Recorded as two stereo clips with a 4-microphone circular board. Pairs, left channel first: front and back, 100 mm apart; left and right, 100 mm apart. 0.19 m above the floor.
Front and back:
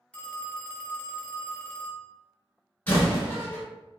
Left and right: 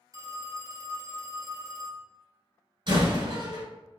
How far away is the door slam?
About 1.3 m.